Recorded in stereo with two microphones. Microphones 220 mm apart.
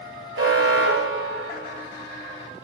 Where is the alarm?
75° right (ahead or behind), 4.5 m.